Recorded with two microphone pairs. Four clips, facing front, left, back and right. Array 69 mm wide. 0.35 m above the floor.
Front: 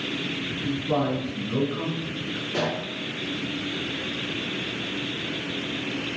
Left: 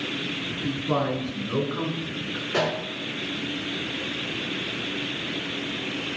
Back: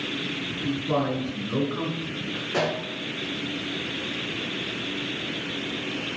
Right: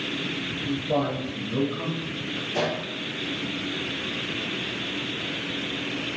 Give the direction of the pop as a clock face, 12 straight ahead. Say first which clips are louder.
Left 2 dB, back 2 dB; 8 o'clock.